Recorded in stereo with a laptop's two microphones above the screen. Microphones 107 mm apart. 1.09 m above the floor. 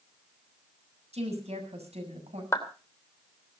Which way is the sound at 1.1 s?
70° right (ahead or behind).